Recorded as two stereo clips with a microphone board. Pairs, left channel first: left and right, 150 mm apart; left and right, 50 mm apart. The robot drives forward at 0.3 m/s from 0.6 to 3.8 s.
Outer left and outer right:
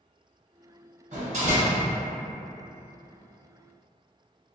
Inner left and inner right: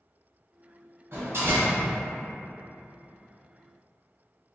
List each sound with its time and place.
1.1 s a door slam: 50° right (ahead or behind), 1.2 m